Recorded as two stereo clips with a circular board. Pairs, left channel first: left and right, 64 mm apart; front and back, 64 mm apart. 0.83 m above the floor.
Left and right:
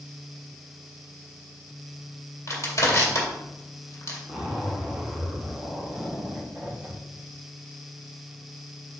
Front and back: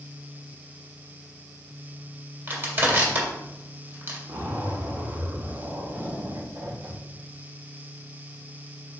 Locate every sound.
2.5 s crushing: 125° left, 2 m
4.3 s a zipper: 165° right, 2.5 m